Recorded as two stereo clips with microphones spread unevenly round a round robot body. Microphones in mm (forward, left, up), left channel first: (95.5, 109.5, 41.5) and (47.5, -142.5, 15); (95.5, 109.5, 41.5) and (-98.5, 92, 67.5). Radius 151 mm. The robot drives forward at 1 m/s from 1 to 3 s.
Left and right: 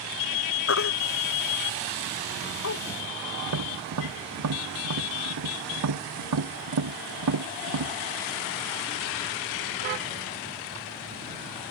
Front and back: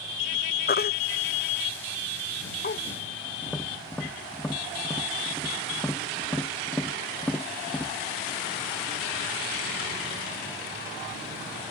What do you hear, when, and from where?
0.7 s a baby crying: 45° left
3.4 s tapping: 80° right